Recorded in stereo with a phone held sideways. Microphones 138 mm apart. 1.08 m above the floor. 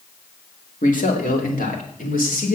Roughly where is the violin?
No violin in this recording.